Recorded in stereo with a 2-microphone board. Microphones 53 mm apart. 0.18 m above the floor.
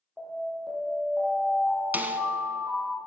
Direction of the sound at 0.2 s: 5° left (ahead or behind).